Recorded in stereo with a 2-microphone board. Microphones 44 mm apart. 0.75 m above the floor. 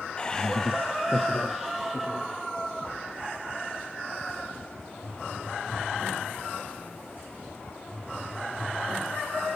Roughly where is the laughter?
Left.